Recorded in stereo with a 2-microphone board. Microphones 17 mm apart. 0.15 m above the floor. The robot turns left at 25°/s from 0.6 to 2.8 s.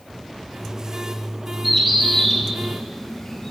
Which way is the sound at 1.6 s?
20° right (ahead or behind).